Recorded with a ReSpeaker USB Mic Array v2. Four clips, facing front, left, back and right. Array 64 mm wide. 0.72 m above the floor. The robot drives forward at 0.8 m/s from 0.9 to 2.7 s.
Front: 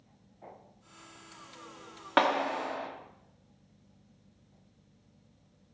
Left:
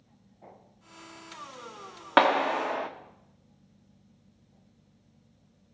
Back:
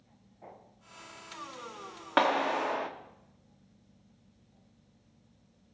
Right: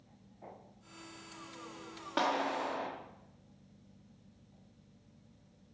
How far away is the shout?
I don't hear a shout.